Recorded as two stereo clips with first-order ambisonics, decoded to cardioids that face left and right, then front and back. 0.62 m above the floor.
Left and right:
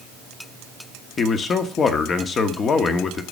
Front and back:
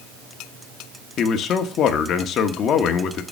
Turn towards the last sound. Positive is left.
turn(degrees=35)